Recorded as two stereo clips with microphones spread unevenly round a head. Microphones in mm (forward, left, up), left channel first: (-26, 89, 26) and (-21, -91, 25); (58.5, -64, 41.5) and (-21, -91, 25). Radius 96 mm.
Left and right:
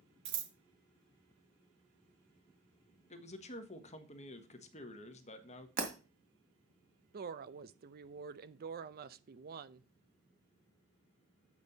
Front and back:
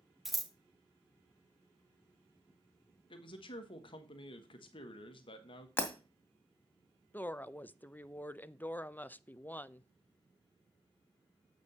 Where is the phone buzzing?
I don't hear a phone buzzing.